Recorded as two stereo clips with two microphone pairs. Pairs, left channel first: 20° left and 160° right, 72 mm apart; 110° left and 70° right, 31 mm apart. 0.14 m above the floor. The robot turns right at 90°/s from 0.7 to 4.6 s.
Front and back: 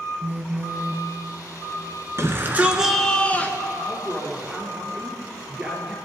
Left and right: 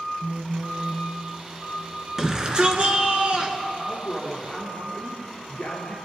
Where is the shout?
140° right, 1.8 m; by 3.6 s 15° right, 1.8 m.